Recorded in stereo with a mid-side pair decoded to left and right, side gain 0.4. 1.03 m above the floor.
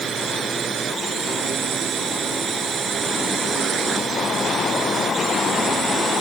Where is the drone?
60° right.